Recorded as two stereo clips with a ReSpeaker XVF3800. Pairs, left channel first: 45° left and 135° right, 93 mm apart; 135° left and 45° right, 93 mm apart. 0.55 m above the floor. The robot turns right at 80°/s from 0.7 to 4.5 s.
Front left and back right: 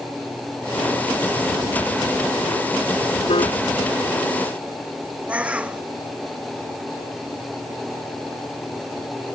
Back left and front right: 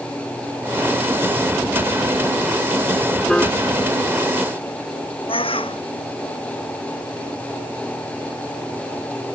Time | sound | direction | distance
3.3 | a piano | 50° left | ?
5.3 | a bird | 150° left | ?